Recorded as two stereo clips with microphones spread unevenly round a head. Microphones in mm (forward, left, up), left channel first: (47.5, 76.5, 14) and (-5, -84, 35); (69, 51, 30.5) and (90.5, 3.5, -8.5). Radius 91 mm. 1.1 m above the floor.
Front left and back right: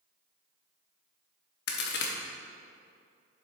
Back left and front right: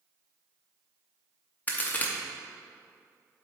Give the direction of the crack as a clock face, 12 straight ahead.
8 o'clock.